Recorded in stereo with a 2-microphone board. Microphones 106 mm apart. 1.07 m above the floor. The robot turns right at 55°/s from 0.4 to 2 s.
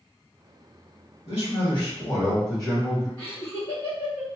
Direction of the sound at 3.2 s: 60° left (ahead or behind).